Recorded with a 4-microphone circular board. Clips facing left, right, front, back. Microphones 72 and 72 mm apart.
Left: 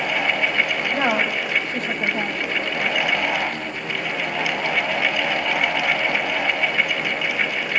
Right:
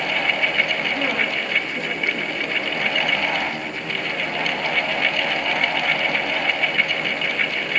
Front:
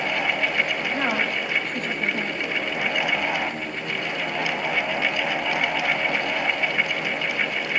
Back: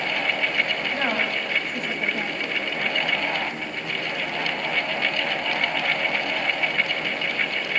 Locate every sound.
0.9 s a woman speaking: 95° left, 4.5 m